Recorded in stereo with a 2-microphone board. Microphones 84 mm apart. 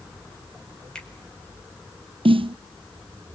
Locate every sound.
0.9 s a finger snap: 10° left (ahead or behind), 4.5 m
2.2 s a snare drum: 75° right (ahead or behind), 0.5 m